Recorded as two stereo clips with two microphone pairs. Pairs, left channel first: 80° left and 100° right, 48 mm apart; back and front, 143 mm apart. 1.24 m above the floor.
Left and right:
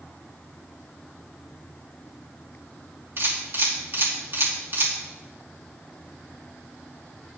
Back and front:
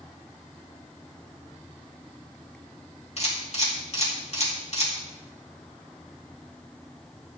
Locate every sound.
3.2 s a camera shutter: 140° right, 2.5 m